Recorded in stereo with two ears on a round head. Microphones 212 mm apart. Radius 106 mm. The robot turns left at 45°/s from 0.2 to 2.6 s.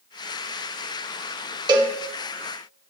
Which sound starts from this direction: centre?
A cowbell, at 1.7 s.